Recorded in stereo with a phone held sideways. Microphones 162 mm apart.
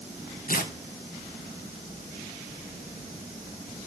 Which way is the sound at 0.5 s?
60° left (ahead or behind).